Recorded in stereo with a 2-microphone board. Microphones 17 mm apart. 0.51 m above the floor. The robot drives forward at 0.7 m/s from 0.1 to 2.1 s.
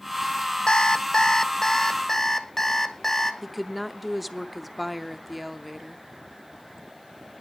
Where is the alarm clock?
50° left (ahead or behind), 0.7 m; by 3.3 s 25° left (ahead or behind), 1.4 m.